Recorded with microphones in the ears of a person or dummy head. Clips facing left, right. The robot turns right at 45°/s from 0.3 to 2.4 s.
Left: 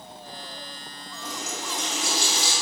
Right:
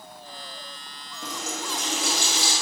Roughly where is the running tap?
Ahead right.